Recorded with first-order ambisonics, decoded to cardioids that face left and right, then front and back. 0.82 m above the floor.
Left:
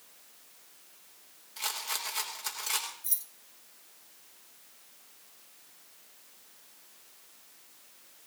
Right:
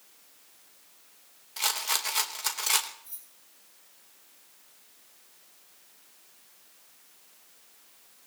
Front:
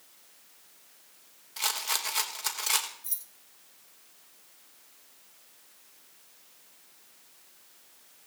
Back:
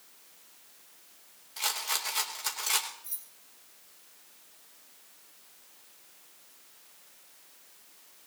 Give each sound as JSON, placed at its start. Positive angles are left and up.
{"t": 1.6, "sound": "a rattle", "azimuth_deg": -65, "distance_m": 1.1}
{"t": 3.0, "sound": "keys jangling", "azimuth_deg": 65, "distance_m": 0.8}